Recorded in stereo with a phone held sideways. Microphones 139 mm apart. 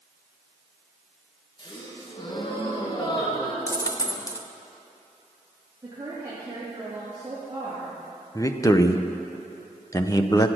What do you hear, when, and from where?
1.6 s a gasp: 35° left (ahead or behind), 1.9 m
3.7 s a dropped coin: 25° left (ahead or behind), 0.7 m
5.8 s a woman speaking: 30° right (ahead or behind), 3 m
8.3 s a man speaking: 25° left (ahead or behind), 0.7 m